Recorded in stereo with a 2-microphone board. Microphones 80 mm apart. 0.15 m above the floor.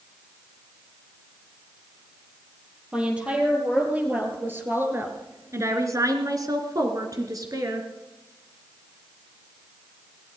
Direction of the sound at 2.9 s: 15° right (ahead or behind).